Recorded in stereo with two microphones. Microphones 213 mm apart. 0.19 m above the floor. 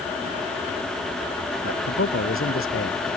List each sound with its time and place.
1.6 s a man speaking: 80° left